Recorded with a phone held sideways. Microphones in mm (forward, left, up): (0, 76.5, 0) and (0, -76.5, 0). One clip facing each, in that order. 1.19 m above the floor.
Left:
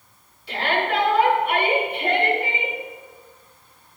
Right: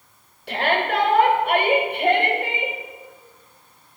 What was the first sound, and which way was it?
A shout, 70° right (ahead or behind).